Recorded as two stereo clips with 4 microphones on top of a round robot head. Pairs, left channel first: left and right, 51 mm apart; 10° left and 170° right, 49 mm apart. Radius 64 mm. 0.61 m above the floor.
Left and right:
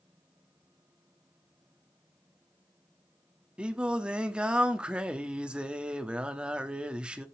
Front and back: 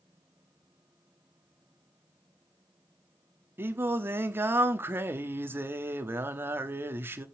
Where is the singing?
155° right, 1.4 m.